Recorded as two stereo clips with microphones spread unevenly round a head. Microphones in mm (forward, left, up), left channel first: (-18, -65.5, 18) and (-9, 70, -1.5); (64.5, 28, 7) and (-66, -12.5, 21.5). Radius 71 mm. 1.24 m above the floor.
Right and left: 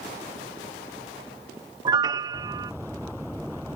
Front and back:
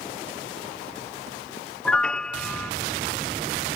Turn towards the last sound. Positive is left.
turn(degrees=90)